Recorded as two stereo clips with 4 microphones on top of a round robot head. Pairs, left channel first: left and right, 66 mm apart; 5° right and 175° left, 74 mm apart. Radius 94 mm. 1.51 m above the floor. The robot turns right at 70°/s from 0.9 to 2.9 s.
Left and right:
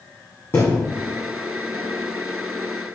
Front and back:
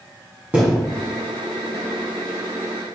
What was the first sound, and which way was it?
A thud, 120° left.